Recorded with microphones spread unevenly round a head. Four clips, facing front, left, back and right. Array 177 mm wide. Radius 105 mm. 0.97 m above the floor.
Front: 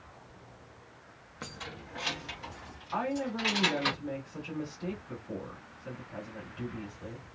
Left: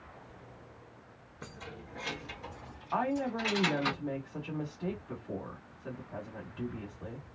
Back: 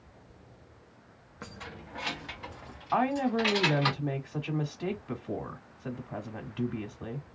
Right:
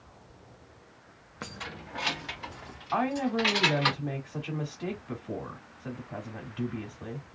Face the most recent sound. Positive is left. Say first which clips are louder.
# right 4 dB, back 6 dB
turn(degrees=-135)